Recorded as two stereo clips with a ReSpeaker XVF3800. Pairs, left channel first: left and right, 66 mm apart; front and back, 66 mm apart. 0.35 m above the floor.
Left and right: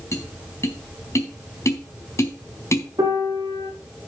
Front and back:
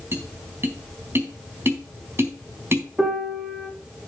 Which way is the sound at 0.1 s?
130° left.